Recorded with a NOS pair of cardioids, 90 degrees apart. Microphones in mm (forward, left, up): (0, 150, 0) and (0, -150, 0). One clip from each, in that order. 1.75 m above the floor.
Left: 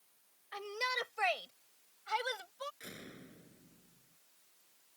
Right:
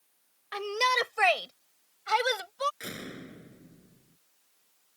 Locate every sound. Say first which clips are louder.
0.5 s a shout: right 10 dB; 65° right; by 2.7 s 70° right
2.8 s a door slam: right 10 dB; 70° right